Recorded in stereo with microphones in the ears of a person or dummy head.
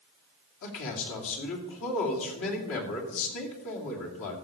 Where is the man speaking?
75° left (ahead or behind), 2.5 m.